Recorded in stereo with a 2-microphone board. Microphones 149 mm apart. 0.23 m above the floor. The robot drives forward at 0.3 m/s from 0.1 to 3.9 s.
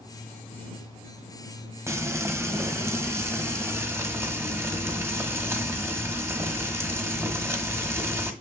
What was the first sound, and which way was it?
Frying, 20° right (ahead or behind).